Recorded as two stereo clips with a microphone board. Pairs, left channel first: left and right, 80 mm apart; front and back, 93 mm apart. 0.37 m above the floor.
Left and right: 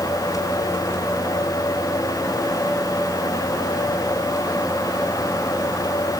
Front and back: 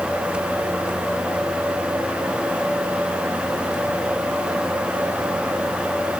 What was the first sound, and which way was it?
Only background noise.